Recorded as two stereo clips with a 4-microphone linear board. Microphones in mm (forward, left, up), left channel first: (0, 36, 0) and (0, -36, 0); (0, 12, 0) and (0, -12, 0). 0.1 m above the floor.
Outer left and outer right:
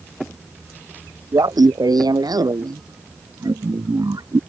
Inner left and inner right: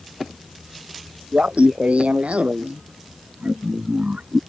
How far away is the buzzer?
No buzzer in this recording.